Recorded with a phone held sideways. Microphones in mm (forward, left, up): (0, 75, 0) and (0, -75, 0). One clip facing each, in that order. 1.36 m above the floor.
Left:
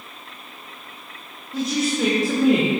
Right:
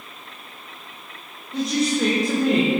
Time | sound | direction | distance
1.5 | a woman speaking | centre (ahead or behind) | 2 m